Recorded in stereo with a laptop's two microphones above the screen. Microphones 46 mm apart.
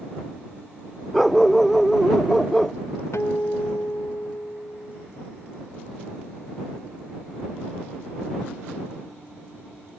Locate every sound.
1.1 s a dog barking: 5° left (ahead or behind)
3.1 s a guitar: 70° left (ahead or behind)